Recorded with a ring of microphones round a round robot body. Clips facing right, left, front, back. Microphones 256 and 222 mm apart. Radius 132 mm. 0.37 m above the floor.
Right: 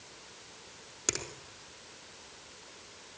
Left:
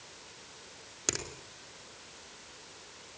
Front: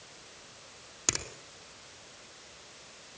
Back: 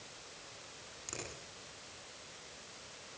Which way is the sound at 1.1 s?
Straight ahead.